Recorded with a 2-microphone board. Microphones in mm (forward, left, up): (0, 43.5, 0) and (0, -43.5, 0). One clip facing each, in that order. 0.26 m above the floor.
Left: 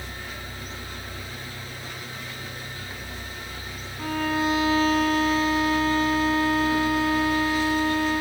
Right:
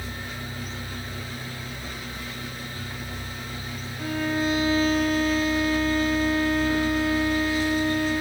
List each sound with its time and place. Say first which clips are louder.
4.0 s a violin: left 1 dB; centre (ahead or behind), 1.6 m